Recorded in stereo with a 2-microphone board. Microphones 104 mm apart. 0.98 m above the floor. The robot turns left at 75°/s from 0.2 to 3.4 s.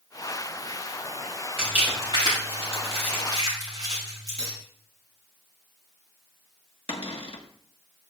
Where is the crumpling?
Centre (ahead or behind), 7 m; by 4.5 s 40° right (ahead or behind), 7 m.